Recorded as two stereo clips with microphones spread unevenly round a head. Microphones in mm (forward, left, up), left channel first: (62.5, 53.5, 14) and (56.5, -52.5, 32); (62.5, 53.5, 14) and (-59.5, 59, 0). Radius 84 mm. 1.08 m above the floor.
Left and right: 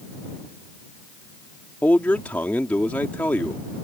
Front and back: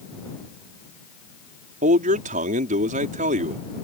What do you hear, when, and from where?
1.8 s a man speaking: 165° left